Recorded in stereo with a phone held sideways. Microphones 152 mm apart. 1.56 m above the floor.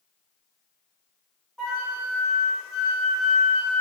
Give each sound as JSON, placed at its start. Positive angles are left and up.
{"t": 1.6, "sound": "a flute", "side_deg": 0, "distance_m": 1.9}